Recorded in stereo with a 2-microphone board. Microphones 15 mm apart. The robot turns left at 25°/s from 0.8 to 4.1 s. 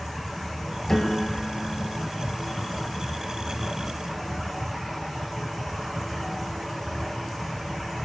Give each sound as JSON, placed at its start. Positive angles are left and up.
{"t": 0.9, "sound": "a piano", "side_deg": 40, "distance_m": 4.0}